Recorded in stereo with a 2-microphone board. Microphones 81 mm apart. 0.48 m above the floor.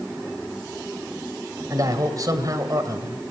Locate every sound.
1.7 s a man speaking: 45° right (ahead or behind), 2 m